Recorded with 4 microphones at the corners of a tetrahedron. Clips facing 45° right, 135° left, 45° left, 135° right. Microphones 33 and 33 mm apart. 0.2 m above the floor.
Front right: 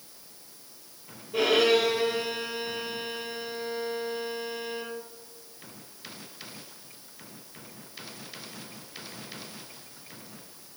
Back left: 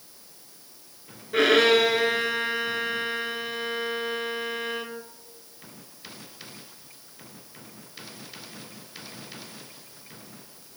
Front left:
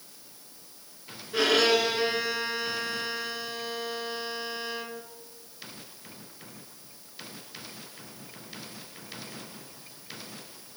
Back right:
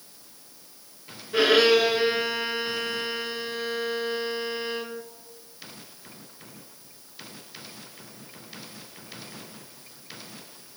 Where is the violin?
155° left, 1.5 m.